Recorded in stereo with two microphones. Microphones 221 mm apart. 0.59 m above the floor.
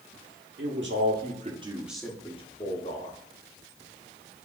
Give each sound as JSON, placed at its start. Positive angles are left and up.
{"t": 0.6, "sound": "a man speaking", "side_deg": -60, "distance_m": 1.6}